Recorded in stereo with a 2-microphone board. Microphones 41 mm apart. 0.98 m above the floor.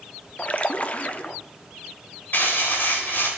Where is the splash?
35° left (ahead or behind), 0.6 m.